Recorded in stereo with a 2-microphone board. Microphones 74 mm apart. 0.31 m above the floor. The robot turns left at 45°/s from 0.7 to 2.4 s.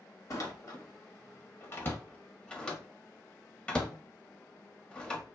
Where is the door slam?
45° left (ahead or behind), 0.7 m; by 5.4 s 15° left (ahead or behind), 0.7 m.